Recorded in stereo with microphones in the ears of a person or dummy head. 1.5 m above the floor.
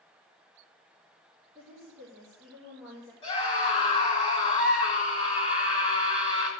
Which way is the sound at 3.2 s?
25° left (ahead or behind).